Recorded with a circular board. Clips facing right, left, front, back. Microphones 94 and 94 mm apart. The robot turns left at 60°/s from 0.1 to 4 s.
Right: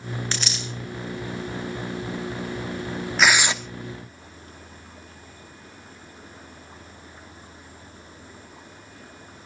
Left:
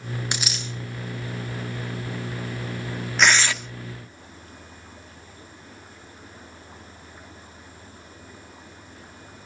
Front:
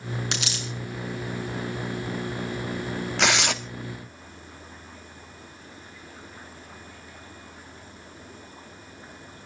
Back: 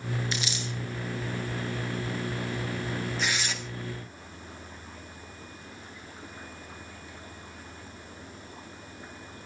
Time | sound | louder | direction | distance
0.3 | a dropped coin | even, front 1 dB | 15° left | 5 m
3.2 | tearing paper | even, front 12 dB | straight ahead | 1.4 m